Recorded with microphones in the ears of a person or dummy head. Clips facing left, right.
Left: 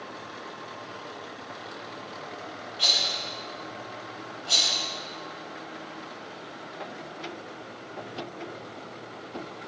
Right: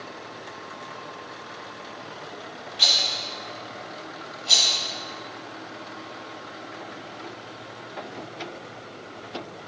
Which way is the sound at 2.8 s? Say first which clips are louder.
Right 1 dB; 20° right (ahead or behind).